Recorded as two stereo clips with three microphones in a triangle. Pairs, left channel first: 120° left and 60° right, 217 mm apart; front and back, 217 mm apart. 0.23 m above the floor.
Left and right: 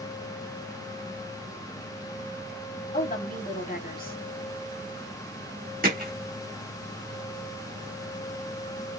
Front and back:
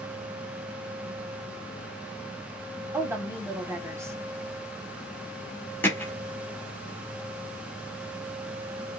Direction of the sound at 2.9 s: 110° left.